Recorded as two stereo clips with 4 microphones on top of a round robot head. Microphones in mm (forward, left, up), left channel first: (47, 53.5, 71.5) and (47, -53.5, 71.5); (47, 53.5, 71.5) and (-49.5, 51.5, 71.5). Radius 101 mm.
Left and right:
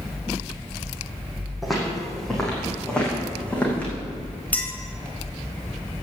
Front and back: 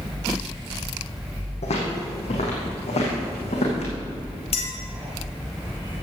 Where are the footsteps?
Straight ahead, 4.5 m; by 3.9 s 10° left, 5.5 m.